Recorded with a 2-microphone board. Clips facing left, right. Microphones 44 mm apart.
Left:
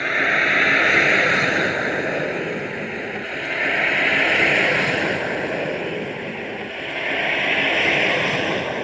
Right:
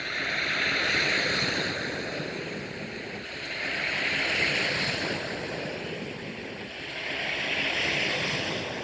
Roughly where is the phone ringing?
No phone ringing in this recording.